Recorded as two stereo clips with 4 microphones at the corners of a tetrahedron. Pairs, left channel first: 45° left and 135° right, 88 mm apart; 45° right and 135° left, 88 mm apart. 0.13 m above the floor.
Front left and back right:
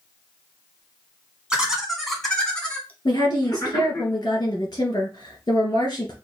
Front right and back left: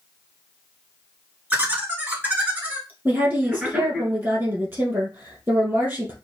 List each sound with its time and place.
1.5 s laughter: 165° left, 1.5 m; by 4.0 s 65° left, 1.8 m
3.0 s a woman speaking: 75° left, 2.5 m